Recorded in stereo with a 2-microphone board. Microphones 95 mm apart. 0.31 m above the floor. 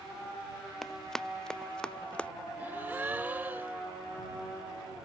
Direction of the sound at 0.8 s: 5° left (ahead or behind).